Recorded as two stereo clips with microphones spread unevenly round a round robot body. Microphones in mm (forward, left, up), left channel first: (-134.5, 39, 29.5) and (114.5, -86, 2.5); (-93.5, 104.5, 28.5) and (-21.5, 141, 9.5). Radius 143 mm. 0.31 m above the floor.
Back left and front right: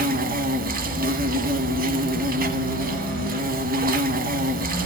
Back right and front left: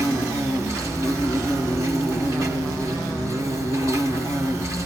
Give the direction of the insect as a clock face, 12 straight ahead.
3 o'clock.